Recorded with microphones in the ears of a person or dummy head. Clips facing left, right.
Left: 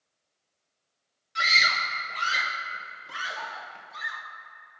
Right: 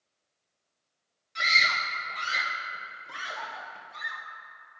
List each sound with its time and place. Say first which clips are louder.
1.4 s a scream: left 2 dB; 5° left (ahead or behind), 0.8 m